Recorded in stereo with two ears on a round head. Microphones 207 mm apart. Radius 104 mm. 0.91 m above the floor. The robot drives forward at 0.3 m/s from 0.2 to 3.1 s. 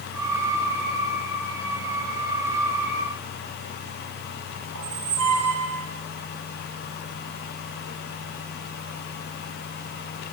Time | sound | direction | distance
4.8 | a squeak | 70° right (ahead or behind) | 4 m